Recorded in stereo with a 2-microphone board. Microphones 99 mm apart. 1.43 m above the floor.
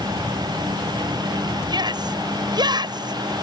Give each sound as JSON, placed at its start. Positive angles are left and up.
{"t": 1.7, "sound": "a shout", "side_deg": -45}